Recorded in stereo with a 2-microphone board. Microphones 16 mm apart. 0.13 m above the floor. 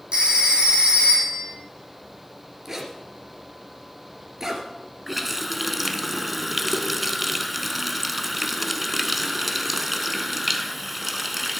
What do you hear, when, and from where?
0.1 s a phone ringing: 80° right, 4 m
2.6 s a zipper: 30° right (ahead or behind), 2 m
5.1 s a running tap: 10° right (ahead or behind), 0.8 m